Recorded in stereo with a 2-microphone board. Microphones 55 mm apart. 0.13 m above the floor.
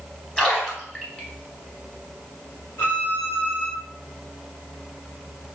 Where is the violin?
40° left (ahead or behind), 1.5 m.